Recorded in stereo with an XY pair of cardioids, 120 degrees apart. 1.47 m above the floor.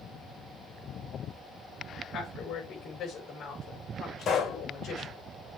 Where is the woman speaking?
60° left, 5.5 m.